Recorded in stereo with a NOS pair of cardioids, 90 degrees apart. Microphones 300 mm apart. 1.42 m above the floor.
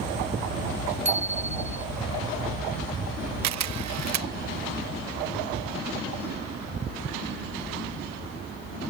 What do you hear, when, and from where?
1.1 s a bicycle bell: 25° right
3.4 s a camera shutter: 65° right